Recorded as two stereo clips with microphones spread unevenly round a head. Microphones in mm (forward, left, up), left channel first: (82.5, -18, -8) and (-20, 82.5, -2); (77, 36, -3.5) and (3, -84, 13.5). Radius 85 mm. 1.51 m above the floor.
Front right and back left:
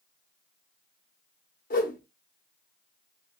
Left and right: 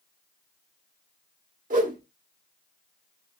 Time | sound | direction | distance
1.7 | a whoosh | 90° right | 1.0 m